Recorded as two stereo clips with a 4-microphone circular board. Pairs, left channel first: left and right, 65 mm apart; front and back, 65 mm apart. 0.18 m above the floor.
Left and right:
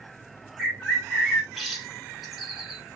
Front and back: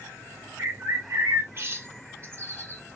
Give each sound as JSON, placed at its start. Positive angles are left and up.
{"t": 0.6, "sound": "a bird", "azimuth_deg": 180, "distance_m": 1.1}